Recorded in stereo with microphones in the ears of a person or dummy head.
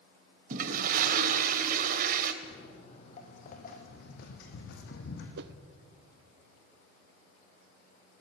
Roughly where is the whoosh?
Right.